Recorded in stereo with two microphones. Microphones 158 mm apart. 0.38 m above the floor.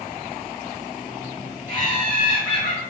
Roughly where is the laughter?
Left.